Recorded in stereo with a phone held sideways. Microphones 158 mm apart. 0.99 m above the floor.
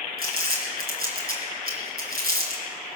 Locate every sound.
0.2 s crumpling: 75° right (ahead or behind), 3 m